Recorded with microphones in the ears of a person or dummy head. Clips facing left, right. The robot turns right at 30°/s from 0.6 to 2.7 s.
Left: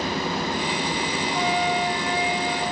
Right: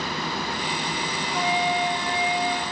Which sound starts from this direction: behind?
A flute, at 1.3 s.